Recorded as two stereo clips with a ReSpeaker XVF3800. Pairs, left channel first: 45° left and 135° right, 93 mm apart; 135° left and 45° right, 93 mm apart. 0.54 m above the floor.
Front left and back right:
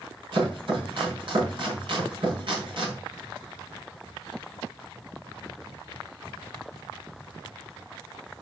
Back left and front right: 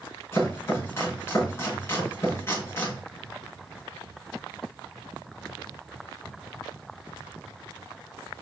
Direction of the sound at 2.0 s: 175° right.